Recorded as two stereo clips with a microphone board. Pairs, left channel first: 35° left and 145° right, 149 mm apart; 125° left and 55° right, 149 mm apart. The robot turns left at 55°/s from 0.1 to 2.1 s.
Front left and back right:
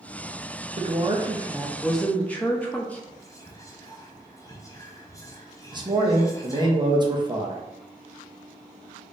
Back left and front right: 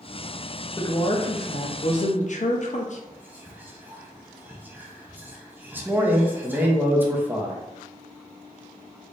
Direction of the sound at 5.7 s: 120° right.